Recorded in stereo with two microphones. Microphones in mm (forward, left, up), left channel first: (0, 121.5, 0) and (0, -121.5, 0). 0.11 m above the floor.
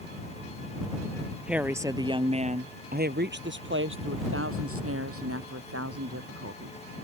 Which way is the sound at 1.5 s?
5° right (ahead or behind).